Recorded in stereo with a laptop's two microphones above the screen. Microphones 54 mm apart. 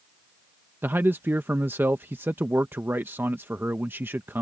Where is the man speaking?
45° right (ahead or behind).